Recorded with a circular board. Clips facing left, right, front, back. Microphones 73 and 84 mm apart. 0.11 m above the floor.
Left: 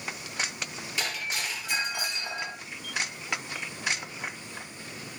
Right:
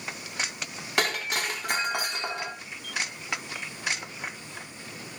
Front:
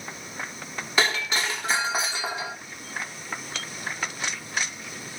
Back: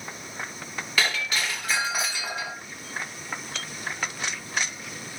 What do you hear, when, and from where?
1.0 s breaking glass: 65° right, 7 m